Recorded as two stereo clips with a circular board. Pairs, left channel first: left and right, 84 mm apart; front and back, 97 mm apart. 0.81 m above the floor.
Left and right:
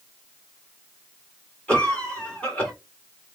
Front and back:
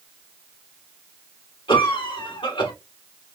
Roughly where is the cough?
Ahead.